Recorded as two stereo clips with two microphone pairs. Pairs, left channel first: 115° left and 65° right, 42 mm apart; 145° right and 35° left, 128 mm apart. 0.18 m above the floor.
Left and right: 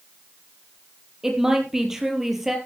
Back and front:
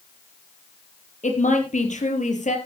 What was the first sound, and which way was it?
A woman speaking, 145° right.